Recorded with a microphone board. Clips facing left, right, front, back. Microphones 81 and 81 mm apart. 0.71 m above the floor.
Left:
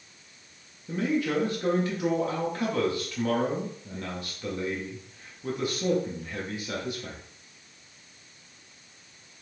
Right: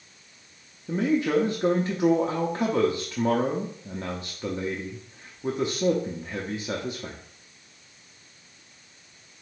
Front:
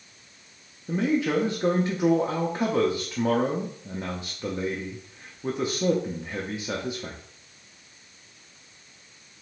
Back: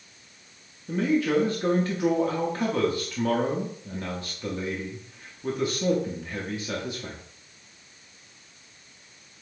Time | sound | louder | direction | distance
0.9 | a man speaking | right 4 dB, back 1 dB | 55° right | 0.7 m